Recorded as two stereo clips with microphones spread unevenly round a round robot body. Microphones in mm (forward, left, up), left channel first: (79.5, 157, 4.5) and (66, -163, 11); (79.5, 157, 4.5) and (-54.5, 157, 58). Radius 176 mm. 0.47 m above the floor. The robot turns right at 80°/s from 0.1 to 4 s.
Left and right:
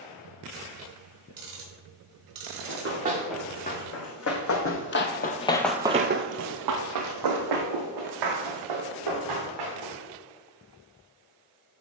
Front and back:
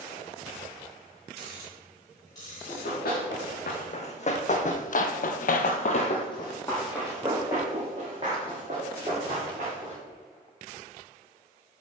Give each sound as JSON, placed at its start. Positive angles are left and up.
{"t": 1.4, "sound": "ticking", "azimuth_deg": -145, "distance_m": 1.6}
{"t": 2.7, "sound": "running footsteps", "azimuth_deg": -55, "distance_m": 2.5}